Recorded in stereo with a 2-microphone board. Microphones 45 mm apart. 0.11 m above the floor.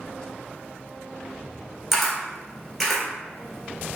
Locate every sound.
1.9 s a camera shutter: centre (ahead or behind), 1.5 m